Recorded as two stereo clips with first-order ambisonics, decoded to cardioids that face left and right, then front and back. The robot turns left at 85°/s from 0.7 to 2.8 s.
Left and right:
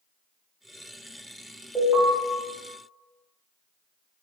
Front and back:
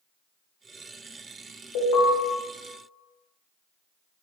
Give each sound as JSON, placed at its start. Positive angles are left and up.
{"t": 1.8, "sound": "an alarm", "azimuth_deg": 5, "distance_m": 1.9}